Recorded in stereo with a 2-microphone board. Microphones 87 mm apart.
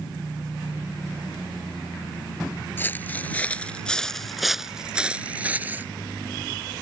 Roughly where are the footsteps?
Left.